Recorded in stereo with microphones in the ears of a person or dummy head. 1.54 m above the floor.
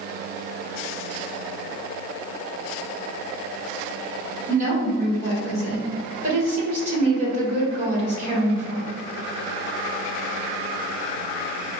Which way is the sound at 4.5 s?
40° right (ahead or behind).